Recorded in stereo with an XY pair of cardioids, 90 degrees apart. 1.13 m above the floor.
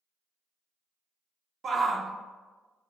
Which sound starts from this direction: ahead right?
A shout, at 1.6 s.